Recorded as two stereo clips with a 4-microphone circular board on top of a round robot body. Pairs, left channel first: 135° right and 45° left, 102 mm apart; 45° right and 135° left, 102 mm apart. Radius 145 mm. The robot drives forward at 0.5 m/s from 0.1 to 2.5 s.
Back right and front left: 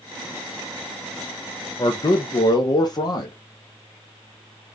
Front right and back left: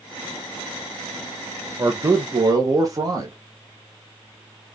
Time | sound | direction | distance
1.8 | a man speaking | 170° right | 0.9 m